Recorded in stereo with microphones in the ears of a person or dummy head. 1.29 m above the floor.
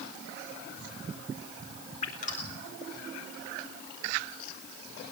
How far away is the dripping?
About 4 m.